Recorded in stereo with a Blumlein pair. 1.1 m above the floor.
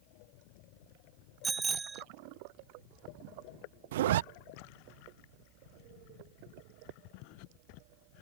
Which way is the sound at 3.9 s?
55° right.